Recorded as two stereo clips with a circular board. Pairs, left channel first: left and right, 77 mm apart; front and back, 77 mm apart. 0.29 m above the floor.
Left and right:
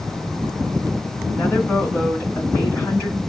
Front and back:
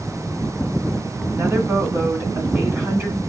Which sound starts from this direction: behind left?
A woman speaking, at 1.3 s.